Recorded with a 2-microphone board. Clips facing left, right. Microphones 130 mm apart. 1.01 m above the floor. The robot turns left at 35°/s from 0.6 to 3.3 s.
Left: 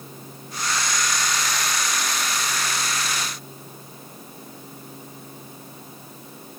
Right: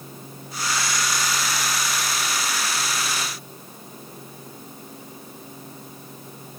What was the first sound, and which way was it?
Only background noise.